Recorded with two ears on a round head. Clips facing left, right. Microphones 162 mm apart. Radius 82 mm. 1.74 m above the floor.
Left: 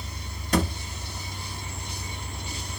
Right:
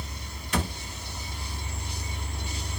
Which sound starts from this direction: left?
A thud, at 0.5 s.